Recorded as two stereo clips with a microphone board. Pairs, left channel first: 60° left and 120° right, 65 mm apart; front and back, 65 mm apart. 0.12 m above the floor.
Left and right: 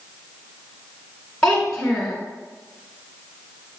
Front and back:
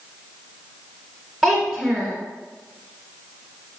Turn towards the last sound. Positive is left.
turn(degrees=115)